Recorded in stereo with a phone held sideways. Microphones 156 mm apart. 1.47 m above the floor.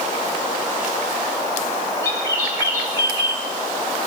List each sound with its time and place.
2.0 s a bird: 20° left (ahead or behind), 2 m